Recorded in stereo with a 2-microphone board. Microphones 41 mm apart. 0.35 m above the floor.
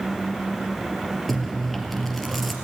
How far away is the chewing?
About 2.0 m.